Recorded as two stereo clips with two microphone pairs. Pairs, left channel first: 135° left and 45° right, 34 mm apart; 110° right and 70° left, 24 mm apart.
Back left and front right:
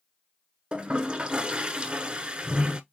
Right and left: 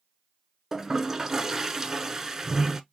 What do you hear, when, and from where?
0.7 s a toilet flushing: straight ahead, 0.5 m